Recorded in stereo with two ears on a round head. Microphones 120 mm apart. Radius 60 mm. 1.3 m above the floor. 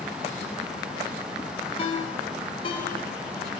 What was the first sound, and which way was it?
A ringtone, 45° left (ahead or behind).